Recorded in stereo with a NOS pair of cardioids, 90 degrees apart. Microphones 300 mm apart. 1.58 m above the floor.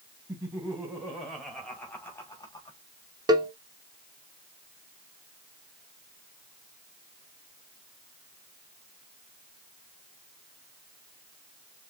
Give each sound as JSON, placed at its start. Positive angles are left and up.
{"t": 0.3, "sound": "laughter", "azimuth_deg": -5, "distance_m": 3.0}
{"t": 3.3, "sound": "a cowbell", "azimuth_deg": -15, "distance_m": 1.2}